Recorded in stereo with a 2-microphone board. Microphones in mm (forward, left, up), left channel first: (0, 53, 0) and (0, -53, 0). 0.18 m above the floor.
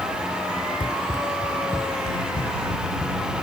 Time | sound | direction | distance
0.8 | running footsteps | 50° left (ahead or behind) | ?